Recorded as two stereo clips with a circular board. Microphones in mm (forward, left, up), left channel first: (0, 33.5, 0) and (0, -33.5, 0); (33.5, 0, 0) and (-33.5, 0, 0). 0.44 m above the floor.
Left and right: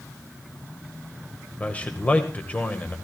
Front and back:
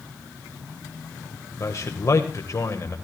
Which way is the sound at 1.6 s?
30° left.